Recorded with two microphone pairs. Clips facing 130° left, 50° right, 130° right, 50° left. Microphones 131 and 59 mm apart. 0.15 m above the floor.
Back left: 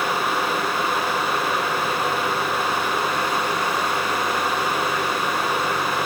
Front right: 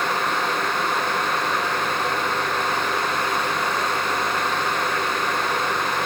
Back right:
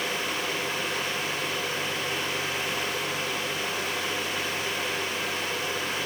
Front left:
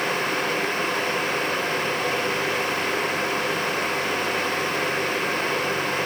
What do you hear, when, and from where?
Only background noise.